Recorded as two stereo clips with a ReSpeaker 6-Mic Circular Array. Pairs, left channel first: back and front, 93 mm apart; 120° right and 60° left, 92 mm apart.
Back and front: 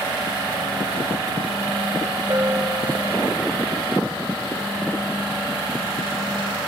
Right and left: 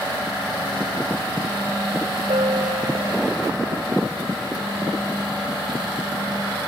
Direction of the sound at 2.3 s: 60° left.